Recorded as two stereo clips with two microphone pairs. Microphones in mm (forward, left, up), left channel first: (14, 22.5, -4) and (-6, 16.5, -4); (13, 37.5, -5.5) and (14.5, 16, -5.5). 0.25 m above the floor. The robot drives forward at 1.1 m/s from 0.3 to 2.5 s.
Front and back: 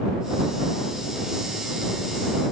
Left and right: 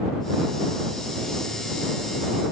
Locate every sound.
Only background noise.